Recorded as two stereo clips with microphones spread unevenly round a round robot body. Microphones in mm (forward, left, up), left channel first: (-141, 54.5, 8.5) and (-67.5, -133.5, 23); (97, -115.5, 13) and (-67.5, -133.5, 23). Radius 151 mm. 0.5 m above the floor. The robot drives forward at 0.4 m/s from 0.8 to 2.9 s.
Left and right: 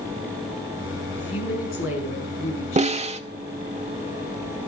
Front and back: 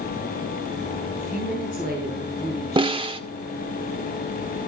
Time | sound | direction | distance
1.1 | a woman speaking | 65° left | 5.5 m
2.8 | a snare drum | 120° right | 1.8 m